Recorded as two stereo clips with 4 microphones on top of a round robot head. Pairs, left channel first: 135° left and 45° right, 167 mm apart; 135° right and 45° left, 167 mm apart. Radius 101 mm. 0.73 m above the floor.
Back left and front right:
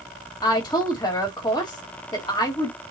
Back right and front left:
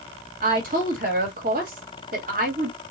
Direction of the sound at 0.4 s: 70° left.